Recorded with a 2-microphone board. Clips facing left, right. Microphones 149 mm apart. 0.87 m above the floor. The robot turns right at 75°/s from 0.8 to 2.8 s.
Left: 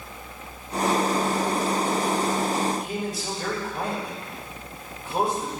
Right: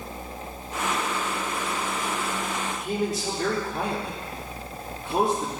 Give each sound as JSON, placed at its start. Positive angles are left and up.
{"t": 2.7, "sound": "a man speaking", "side_deg": -75, "distance_m": 2.5}